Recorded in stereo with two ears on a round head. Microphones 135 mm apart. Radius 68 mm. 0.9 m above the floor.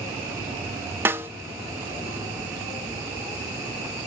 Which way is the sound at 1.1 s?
15° right (ahead or behind).